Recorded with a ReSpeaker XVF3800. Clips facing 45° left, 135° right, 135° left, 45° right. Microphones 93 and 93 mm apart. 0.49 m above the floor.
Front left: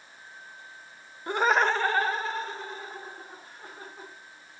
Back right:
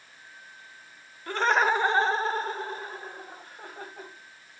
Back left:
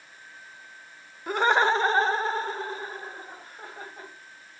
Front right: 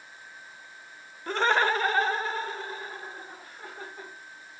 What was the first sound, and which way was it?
Laughter, 65° left.